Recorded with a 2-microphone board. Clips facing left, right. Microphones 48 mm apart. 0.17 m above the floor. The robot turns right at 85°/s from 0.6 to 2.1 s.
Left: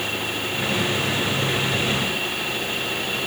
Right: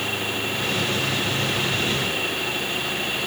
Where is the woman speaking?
I don't hear a woman speaking.